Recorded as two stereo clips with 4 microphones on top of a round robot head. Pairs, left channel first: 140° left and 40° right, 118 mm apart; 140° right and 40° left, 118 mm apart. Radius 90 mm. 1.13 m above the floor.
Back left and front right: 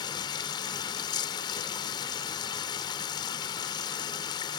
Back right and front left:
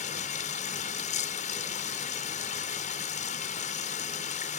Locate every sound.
0.0 s running water: 165° right